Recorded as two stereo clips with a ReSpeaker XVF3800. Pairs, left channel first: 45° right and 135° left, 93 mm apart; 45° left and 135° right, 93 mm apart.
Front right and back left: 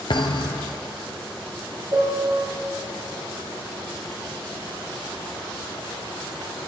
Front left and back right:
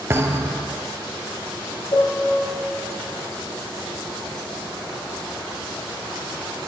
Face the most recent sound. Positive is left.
turn(degrees=85)